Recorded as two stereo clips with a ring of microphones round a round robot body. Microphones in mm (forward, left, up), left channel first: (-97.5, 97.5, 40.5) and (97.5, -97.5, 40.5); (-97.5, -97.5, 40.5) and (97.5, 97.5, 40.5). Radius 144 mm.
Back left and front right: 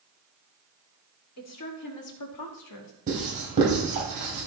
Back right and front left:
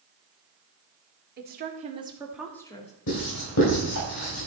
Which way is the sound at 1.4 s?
100° left.